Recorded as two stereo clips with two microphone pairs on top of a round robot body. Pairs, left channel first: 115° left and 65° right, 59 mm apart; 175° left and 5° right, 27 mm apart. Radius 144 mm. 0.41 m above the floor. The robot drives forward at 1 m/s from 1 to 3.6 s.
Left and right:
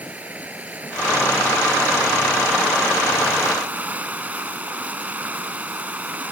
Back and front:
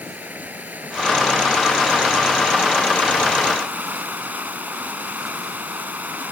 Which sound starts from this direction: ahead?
Running water, at 0.0 s.